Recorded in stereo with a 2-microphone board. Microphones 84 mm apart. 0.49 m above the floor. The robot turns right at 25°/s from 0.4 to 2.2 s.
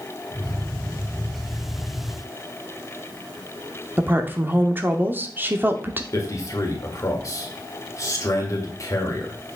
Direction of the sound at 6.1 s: 40° left (ahead or behind).